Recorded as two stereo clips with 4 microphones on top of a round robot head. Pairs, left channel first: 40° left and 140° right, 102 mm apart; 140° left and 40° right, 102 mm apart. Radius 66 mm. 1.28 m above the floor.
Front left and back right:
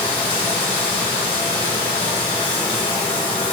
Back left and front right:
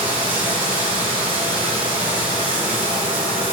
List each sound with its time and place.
0.0 s running water: 5° right, 2.5 m